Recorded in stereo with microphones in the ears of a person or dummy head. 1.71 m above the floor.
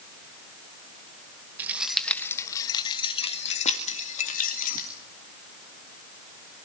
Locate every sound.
1.6 s keys jangling: 15° right (ahead or behind), 1.1 m; by 4.9 s 40° left (ahead or behind), 2.5 m